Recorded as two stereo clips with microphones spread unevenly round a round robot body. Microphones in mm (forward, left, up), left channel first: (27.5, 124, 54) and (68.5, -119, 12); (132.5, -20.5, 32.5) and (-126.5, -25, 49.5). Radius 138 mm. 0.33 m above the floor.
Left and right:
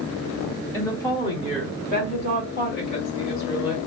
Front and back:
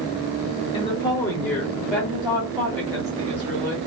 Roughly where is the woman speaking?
Ahead.